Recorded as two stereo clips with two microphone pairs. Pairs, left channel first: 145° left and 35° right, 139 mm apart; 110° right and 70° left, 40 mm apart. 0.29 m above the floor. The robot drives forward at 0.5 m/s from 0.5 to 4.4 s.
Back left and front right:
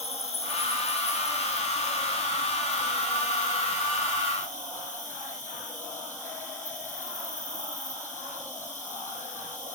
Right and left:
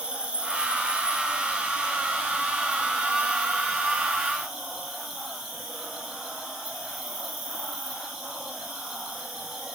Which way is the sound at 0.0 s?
130° left.